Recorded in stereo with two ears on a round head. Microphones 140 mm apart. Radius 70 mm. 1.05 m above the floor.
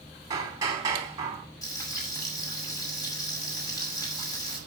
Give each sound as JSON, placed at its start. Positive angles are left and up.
{"t": 0.3, "sound": "hammering", "side_deg": -25, "distance_m": 3.0}
{"t": 1.6, "sound": "frying", "side_deg": 25, "distance_m": 7.5}